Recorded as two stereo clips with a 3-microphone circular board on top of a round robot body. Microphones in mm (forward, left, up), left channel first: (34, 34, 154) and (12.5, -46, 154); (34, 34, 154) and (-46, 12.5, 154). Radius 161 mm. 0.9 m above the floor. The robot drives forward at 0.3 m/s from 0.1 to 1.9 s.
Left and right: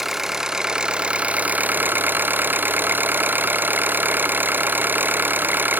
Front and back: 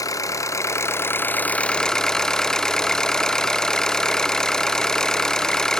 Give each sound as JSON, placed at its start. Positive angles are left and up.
{"t": 0.0, "sound": "an engine running", "azimuth_deg": -20, "distance_m": 0.9}